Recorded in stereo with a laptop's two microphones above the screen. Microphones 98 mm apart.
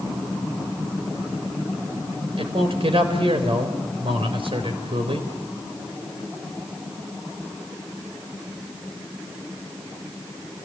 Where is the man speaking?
70° right (ahead or behind), 4 m.